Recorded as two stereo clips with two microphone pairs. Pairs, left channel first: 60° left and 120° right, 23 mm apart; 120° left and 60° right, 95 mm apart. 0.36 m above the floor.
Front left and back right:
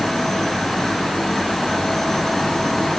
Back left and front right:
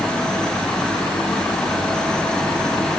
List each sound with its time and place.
Only background noise.